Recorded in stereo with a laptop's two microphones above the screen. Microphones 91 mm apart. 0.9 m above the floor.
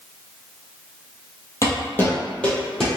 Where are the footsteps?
35° left (ahead or behind), 1.4 m; by 2.9 s 5° left (ahead or behind), 1.5 m.